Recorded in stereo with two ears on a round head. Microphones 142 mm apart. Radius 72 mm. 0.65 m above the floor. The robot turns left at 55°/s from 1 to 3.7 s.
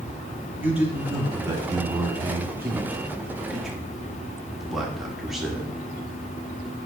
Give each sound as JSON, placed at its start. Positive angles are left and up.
{"t": 0.6, "sound": "a man speaking", "side_deg": -10, "distance_m": 1.2}